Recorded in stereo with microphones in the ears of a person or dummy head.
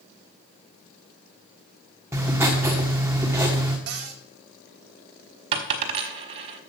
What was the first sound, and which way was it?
Writing, 15° right (ahead or behind).